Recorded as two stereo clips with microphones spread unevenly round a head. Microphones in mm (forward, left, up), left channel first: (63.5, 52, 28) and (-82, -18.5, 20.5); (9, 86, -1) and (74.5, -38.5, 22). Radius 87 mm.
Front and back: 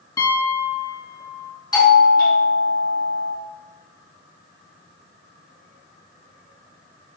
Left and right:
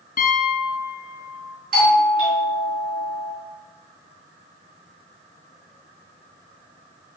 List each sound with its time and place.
0.2 s a piano: 95° left, 3 m
1.7 s a doorbell: 45° right, 4 m